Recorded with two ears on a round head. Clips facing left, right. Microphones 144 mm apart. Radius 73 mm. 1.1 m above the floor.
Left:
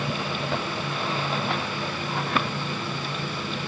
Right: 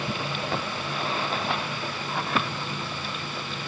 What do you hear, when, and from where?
Only background noise.